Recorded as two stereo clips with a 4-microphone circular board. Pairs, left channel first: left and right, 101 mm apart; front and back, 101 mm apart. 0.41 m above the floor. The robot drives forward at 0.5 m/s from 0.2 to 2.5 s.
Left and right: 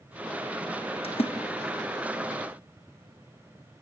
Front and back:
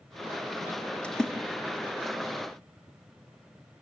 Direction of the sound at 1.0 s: 80° left.